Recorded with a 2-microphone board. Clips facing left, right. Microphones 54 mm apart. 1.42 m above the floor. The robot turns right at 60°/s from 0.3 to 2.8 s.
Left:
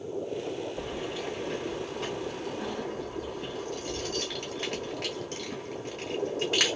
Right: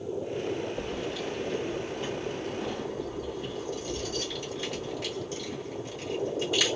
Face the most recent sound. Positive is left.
turn(degrees=55)  # may be behind; listen again after turning